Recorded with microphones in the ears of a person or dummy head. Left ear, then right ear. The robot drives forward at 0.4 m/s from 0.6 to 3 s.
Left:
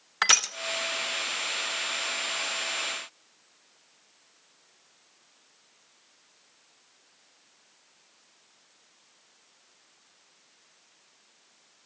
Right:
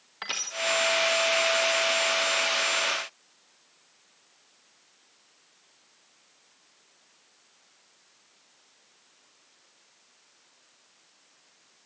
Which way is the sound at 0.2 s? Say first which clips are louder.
Left 10 dB; 45° left (ahead or behind).